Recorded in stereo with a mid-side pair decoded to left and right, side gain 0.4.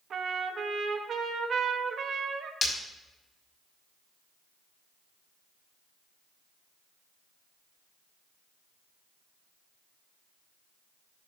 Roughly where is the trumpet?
Ahead right.